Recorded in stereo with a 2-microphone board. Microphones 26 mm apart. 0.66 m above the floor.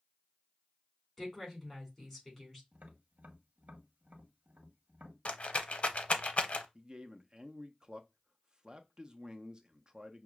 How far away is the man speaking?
About 0.6 m.